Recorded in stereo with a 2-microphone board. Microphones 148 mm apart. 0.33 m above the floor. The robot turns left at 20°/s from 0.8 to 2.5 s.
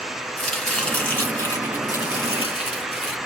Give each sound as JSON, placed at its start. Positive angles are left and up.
{"t": 0.4, "sound": "chopping", "azimuth_deg": 175, "distance_m": 3.5}